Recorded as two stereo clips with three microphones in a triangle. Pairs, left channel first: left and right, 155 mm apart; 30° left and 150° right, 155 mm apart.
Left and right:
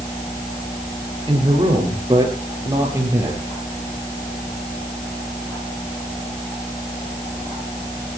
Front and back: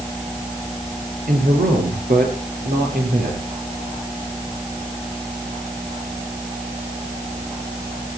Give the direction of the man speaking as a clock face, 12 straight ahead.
5 o'clock.